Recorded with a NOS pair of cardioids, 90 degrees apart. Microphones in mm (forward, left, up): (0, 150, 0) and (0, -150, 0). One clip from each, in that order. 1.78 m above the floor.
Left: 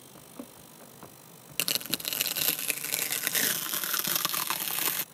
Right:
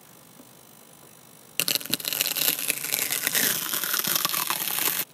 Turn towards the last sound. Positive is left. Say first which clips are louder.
# right 4 dB
turn(degrees=-25)